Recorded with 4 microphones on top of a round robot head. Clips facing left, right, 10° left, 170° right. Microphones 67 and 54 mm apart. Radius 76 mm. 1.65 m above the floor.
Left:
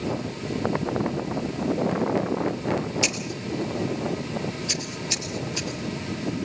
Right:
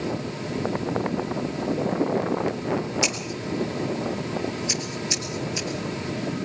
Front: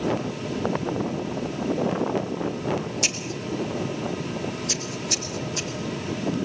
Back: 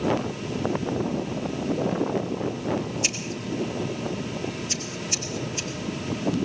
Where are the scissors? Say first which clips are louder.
Right 1 dB, front 1 dB; 20° right, 5 m.